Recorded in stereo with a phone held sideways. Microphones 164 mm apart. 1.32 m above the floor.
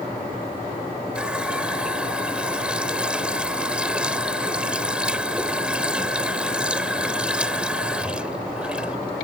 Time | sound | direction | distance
1.1 | a running tap | 5° right (ahead or behind) | ?